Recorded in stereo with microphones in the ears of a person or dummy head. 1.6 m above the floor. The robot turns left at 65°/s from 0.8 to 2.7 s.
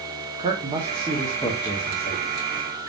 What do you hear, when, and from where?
0.4 s a man speaking: 150° right, 1.0 m; by 2.2 s 120° left, 1.0 m